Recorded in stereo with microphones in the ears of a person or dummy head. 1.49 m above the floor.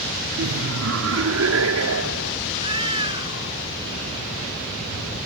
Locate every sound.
0.4 s laughter: 65° right (ahead or behind); by 2.4 s 90° right
2.5 s a cat meowing: 25° right (ahead or behind)